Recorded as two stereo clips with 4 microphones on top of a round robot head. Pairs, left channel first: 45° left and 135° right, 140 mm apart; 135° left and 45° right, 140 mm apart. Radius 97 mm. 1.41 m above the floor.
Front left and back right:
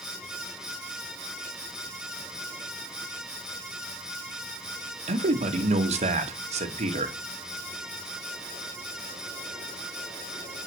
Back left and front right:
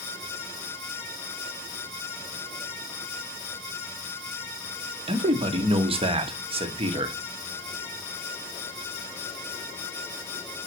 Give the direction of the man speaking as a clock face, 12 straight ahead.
3 o'clock.